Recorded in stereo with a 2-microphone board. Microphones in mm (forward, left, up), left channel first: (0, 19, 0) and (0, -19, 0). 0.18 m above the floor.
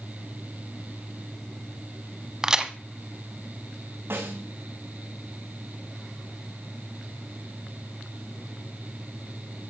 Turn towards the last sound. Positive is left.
turn(degrees=-80)